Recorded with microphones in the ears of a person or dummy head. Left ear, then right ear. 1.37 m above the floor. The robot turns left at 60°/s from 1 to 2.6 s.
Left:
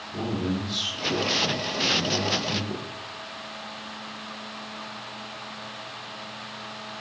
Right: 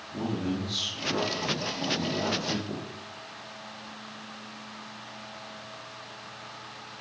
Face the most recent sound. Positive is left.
turn(degrees=-105)